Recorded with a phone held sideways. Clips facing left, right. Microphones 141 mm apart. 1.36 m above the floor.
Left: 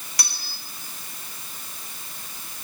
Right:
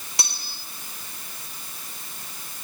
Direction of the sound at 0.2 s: 25° right (ahead or behind).